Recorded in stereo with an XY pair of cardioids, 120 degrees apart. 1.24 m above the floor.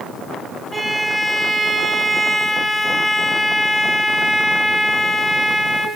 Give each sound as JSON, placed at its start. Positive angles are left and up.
{"t": 0.7, "sound": "a violin", "azimuth_deg": -15, "distance_m": 1.3}